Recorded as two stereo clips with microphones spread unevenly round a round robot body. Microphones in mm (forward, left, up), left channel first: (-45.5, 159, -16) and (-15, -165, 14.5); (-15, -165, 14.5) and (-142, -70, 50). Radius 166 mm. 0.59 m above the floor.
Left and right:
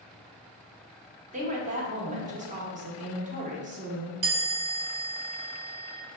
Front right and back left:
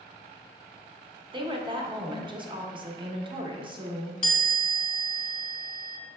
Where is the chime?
100° right, 1.5 m.